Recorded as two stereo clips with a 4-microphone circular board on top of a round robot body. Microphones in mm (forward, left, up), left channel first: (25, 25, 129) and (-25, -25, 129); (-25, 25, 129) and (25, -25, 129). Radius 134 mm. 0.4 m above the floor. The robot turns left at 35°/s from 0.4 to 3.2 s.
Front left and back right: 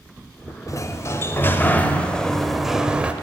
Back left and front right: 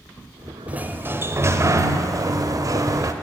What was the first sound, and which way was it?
A sliding door, 20° left.